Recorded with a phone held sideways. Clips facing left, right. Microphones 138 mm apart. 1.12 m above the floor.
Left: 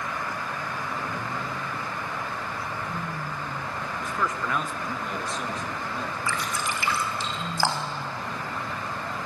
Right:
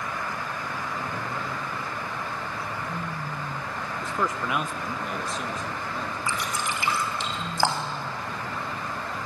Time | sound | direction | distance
4.0 | a man speaking | 25° right (ahead or behind) | 0.8 m
6.3 | dripping | 20° right (ahead or behind) | 4 m